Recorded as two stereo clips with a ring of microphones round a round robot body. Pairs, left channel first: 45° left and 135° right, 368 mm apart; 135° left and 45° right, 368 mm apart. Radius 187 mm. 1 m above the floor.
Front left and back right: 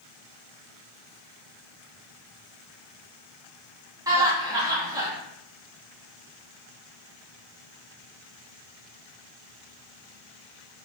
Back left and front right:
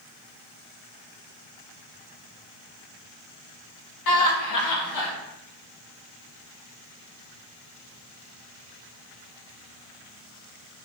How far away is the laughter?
About 0.8 m.